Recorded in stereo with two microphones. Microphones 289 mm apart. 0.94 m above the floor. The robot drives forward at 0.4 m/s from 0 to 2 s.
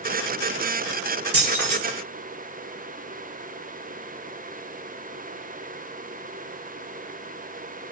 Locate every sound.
1.3 s keys jangling: 50° right (ahead or behind), 1.3 m; by 1.8 s 55° right (ahead or behind), 1.2 m